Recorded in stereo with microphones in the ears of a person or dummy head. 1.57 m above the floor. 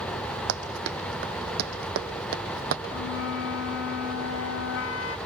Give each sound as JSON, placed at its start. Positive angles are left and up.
{"t": 0.5, "sound": "running footsteps", "side_deg": -70, "distance_m": 4.0}
{"t": 2.9, "sound": "a flute", "side_deg": 75, "distance_m": 2.5}